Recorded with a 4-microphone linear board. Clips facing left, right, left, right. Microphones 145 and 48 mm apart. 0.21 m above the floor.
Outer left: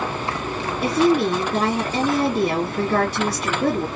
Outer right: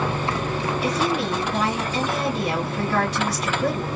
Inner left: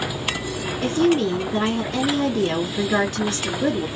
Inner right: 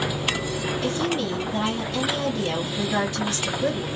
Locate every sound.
0.8 s a woman speaking: 50° left (ahead or behind), 2 m